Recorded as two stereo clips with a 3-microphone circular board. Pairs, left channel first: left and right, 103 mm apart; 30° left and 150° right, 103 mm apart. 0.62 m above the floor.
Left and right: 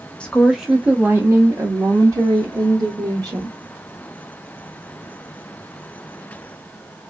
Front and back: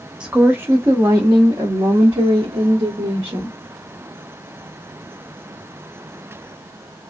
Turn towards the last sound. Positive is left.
turn(degrees=-125)